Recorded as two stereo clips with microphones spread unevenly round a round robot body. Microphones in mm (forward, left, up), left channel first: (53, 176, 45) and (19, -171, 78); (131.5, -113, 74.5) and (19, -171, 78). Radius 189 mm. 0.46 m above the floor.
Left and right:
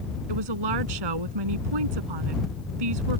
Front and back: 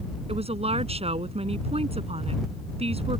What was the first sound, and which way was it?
A woman speaking, 115° right.